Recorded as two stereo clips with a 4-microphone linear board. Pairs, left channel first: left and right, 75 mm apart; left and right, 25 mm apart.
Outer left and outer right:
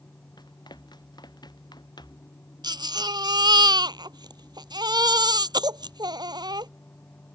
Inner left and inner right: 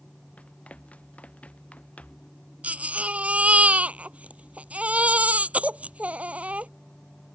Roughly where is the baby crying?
Right.